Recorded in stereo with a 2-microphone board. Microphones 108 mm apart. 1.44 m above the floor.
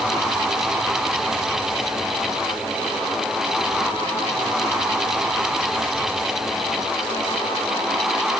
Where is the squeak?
No squeak in this recording.